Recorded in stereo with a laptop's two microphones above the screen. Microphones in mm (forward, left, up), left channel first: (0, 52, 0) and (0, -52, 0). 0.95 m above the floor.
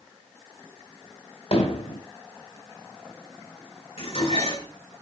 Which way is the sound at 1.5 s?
65° left (ahead or behind).